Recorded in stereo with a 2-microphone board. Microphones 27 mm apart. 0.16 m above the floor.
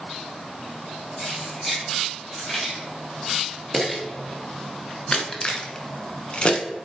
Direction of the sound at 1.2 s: 10° left (ahead or behind).